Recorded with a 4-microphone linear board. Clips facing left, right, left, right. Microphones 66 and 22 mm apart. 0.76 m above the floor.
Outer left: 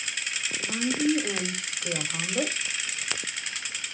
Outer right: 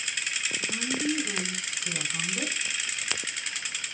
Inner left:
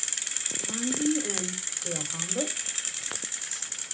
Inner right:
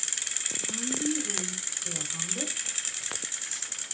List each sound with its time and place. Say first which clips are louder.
0.6 s a woman speaking: outer left 6 dB, inner left 4 dB; 85° left, 3.5 m